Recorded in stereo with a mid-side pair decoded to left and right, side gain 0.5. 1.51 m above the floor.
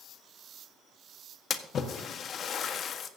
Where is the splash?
55° left, 1.5 m.